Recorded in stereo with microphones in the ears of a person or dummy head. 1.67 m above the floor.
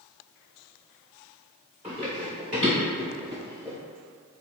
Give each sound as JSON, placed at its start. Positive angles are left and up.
{"t": 1.8, "sound": "running footsteps", "side_deg": -15, "distance_m": 1.7}